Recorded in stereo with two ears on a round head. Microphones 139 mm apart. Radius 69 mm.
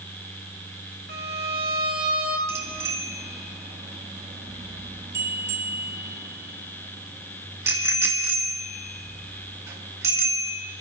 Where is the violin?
60° right (ahead or behind), 2 m.